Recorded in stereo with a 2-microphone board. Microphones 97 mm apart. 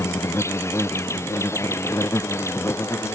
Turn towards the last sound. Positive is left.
turn(degrees=30)  # may be behind; listen again after turning